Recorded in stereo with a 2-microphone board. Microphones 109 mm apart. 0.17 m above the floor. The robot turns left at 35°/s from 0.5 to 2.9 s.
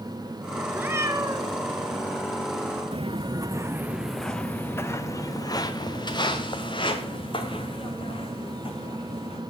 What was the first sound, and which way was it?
A cat meowing, 20° right (ahead or behind).